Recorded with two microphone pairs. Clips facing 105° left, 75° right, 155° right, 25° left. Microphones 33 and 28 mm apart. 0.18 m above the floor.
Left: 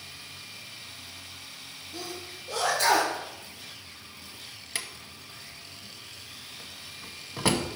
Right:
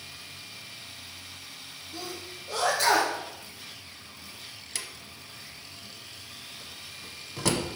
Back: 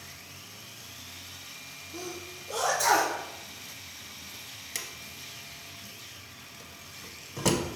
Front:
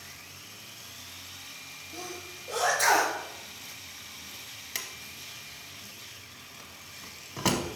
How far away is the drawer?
About 0.7 m.